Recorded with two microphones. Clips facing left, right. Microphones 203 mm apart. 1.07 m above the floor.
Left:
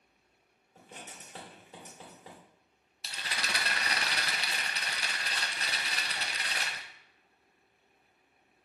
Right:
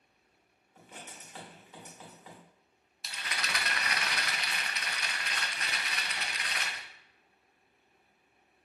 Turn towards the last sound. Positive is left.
turn(degrees=30)  # may be behind; listen again after turning